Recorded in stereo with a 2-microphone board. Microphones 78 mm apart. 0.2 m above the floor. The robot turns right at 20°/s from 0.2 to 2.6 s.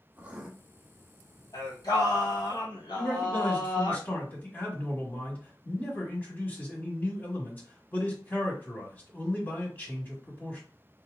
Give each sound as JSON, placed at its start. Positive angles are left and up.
{"t": 0.2, "sound": "writing", "side_deg": -15, "distance_m": 0.8}
{"t": 1.5, "sound": "singing", "side_deg": 50, "distance_m": 2.0}
{"t": 3.0, "sound": "a man speaking", "side_deg": 20, "distance_m": 1.5}